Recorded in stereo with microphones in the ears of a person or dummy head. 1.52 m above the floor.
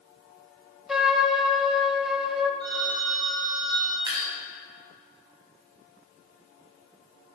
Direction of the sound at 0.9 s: 5° right (ahead or behind).